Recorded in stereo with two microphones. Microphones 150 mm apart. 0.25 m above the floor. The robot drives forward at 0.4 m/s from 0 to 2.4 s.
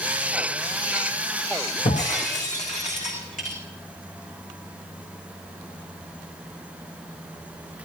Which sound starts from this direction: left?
Breaking glass, at 1.9 s.